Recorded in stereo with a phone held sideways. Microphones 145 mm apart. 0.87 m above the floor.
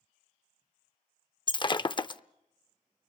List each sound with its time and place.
1.5 s breaking glass: 35° left (ahead or behind), 0.5 m